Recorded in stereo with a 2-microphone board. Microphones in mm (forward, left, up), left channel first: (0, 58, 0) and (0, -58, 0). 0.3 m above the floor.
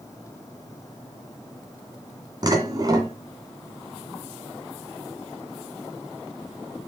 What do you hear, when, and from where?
2.4 s dishes clattering: 35° right (ahead or behind), 2 m